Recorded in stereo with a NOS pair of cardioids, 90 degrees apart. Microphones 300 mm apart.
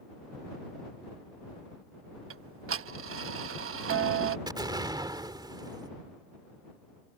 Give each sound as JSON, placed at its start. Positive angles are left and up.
{"t": 2.3, "sound": "ticking", "azimuth_deg": -50}
{"t": 4.5, "sound": "an explosion", "azimuth_deg": -15}